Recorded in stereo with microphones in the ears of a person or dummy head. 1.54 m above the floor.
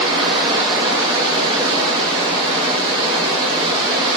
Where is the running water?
20° right (ahead or behind), 2.5 m.